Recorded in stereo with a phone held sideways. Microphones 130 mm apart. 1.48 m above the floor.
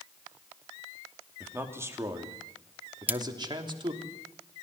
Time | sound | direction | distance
1.4 | a man speaking | 15° right (ahead or behind) | 3 m
3.1 | cutlery clinking | 15° right (ahead or behind) | 0.6 m